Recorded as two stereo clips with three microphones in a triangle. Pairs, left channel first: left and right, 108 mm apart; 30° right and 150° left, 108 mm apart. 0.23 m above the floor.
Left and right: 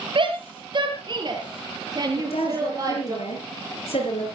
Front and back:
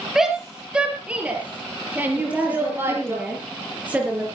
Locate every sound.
0.1 s a shout: 125° right, 5.5 m; by 3.2 s 145° right, 7 m
2.2 s a woman speaking: 70° left, 5.5 m